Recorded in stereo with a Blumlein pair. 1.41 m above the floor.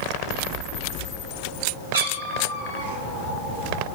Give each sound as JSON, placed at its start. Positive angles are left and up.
{"t": 1.9, "sound": "a cat meowing", "azimuth_deg": -70, "distance_m": 4.5}